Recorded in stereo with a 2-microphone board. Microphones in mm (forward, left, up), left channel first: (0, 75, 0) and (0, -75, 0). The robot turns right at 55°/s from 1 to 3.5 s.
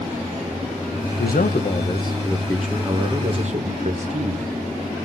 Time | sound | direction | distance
1.2 | a man speaking | 105° left | 1.0 m